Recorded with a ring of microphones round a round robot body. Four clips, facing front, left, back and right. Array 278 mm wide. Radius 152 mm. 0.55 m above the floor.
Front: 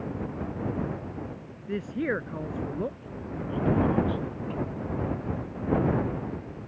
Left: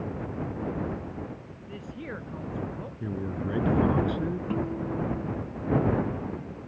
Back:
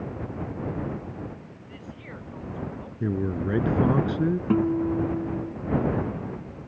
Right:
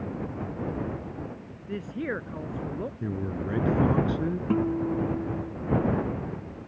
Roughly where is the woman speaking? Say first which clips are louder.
Right 7 dB, front 15 dB; ahead right.